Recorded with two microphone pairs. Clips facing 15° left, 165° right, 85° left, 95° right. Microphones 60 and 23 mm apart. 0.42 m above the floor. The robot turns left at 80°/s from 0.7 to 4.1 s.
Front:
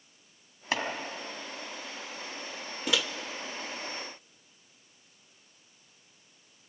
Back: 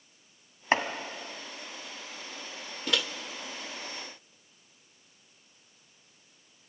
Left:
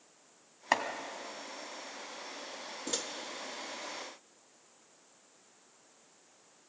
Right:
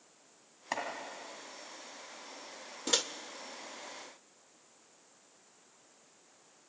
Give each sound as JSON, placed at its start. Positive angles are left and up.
{"t": 0.7, "sound": "chopping", "azimuth_deg": 145, "distance_m": 1.6}
{"t": 2.9, "sound": "a microwave", "azimuth_deg": -70, "distance_m": 0.7}